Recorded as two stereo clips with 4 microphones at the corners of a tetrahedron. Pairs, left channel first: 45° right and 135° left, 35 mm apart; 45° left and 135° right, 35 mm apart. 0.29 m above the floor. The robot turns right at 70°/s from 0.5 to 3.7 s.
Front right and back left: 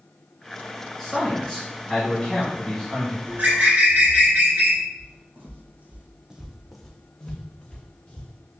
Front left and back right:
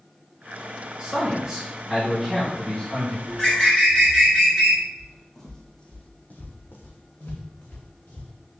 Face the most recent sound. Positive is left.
turn(degrees=10)